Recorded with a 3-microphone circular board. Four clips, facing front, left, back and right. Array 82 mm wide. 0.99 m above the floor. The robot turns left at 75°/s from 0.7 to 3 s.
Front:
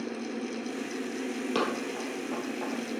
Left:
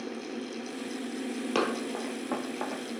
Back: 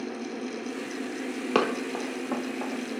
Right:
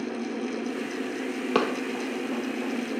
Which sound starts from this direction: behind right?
Running footsteps, at 1.6 s.